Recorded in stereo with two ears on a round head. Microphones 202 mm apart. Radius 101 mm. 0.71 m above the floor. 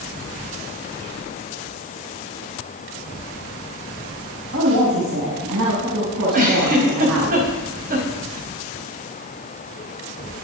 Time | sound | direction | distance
4.5 | a woman speaking | 65° right (ahead or behind) | 4.5 m
6.3 | a giggle | 40° right (ahead or behind) | 4.5 m